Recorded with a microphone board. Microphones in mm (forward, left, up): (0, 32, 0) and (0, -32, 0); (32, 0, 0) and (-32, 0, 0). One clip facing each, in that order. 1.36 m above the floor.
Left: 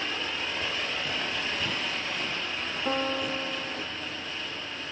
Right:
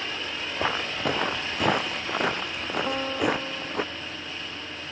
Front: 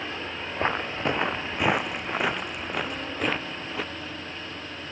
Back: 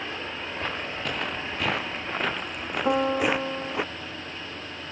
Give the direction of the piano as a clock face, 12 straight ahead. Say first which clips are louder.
Right 2 dB, back 11 dB; 6 o'clock.